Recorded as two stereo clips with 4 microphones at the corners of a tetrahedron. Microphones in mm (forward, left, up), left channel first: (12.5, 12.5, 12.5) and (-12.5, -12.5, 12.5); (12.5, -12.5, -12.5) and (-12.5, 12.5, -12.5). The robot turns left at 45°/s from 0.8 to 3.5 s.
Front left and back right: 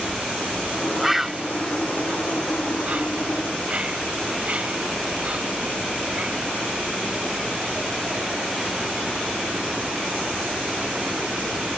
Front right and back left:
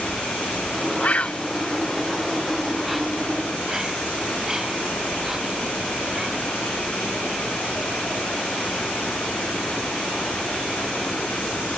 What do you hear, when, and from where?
1.0 s a bird: 50° right; by 6.3 s 160° right